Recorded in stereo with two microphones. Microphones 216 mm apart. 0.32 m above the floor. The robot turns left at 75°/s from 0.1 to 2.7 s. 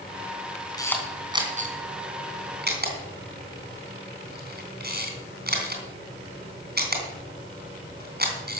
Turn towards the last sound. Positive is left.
turn(degrees=-50)  # may be behind; listen again after turning